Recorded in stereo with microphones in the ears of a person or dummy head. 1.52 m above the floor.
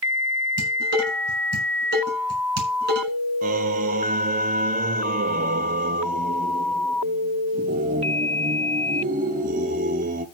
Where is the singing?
40° right (ahead or behind), 1.1 m.